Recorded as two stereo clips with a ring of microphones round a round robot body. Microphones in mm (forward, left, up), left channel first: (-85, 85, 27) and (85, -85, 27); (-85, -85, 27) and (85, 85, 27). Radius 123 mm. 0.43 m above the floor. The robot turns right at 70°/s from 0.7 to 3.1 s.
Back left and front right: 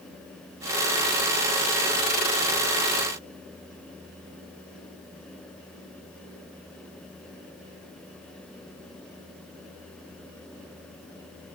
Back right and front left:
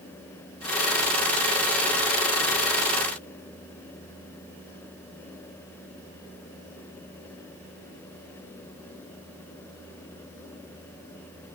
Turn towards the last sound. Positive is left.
No sound to turn to.